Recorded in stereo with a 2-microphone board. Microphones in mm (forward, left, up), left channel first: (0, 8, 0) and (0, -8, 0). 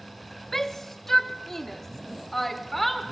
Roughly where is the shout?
Left.